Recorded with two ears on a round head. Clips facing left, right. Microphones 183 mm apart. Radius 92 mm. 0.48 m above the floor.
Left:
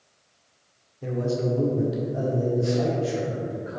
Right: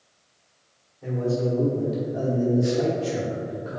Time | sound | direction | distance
1.0 | a man speaking | 40° left (ahead or behind) | 1.5 m